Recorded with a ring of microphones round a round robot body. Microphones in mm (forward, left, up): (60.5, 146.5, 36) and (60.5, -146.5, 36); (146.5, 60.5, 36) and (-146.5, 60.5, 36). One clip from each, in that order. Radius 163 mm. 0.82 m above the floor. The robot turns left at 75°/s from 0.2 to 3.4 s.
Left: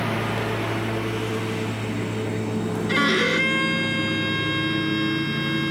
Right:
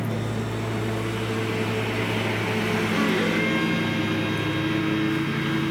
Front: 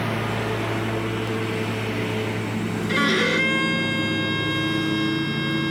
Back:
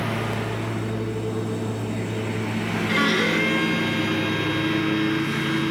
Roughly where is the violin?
Left.